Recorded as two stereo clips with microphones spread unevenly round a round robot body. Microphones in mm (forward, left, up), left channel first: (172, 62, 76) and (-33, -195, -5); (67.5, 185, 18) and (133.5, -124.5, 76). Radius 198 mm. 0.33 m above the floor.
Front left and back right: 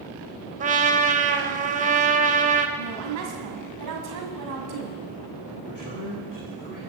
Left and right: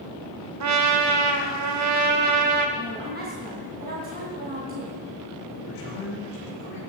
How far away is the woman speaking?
About 2 m.